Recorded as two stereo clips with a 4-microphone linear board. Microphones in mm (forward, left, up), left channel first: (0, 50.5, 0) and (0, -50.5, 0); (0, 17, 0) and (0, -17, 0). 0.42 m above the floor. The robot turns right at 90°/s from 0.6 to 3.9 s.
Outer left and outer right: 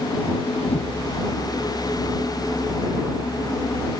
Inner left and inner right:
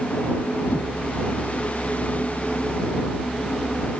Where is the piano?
I don't hear a piano.